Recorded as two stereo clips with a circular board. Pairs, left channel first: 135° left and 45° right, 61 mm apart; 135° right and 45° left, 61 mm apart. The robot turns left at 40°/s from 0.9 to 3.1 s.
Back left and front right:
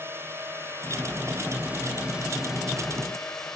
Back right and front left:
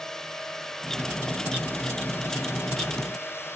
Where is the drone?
60° right; by 3.6 s 145° right.